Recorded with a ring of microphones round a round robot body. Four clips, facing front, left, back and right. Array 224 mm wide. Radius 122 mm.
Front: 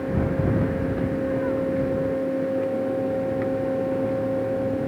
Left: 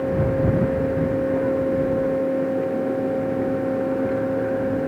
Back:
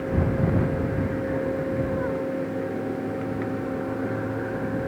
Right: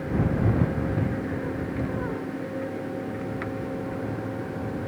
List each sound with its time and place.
Only background noise.